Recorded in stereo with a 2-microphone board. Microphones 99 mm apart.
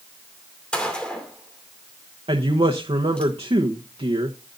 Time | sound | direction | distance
0.7 | a gunshot | 10° left (ahead or behind) | 2.5 m
2.3 | a woman speaking | 80° right | 1.0 m